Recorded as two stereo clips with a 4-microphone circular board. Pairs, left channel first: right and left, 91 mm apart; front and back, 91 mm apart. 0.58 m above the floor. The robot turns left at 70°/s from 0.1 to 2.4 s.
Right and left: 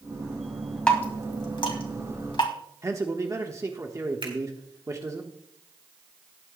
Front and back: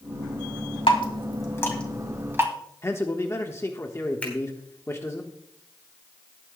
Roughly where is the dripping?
Ahead.